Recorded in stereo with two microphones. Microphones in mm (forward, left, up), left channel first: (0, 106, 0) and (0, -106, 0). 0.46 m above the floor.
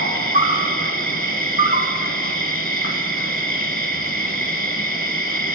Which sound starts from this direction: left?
An insect, at 0.0 s.